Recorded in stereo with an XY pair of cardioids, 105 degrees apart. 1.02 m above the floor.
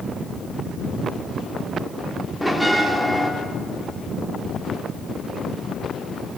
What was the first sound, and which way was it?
A bell, straight ahead.